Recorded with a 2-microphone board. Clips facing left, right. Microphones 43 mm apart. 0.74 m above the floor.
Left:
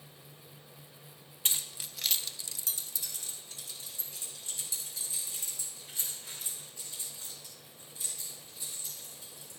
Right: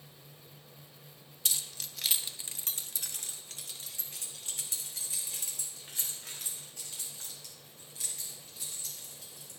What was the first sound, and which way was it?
Keys jangling, 35° left (ahead or behind).